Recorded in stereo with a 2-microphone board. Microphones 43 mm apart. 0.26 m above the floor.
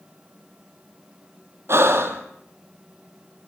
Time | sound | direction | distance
1.7 | breathing | 65° right (ahead or behind) | 2 m